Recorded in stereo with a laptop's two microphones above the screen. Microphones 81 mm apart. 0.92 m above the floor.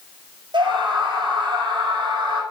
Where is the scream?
80° right, 5 m.